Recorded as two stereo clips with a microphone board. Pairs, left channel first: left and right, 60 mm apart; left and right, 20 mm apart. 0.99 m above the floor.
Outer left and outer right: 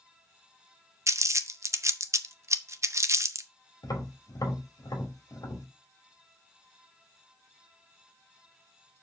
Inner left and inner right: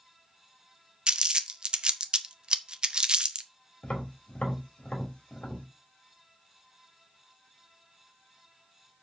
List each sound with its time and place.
1.1 s crumpling: 50° right (ahead or behind), 0.8 m
3.8 s tapping: 85° left, 2.5 m